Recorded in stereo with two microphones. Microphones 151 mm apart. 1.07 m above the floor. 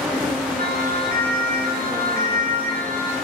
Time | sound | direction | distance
0.6 | a siren | 85° right | 9.5 m